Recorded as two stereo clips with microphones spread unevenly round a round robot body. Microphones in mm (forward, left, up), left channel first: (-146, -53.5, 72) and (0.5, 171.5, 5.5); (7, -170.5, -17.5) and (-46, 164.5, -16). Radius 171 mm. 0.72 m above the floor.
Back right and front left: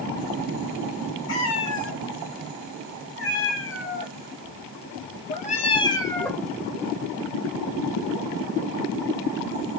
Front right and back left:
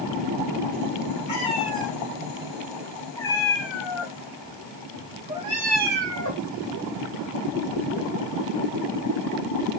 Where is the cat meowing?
150° right, 3.5 m; by 6.5 s 145° left, 1.1 m.